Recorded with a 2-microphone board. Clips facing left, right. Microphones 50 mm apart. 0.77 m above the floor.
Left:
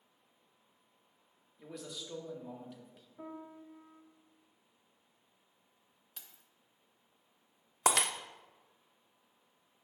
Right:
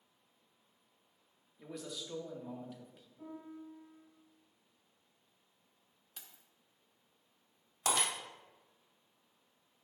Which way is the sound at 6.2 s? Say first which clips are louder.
Right 1 dB; 5° right (ahead or behind).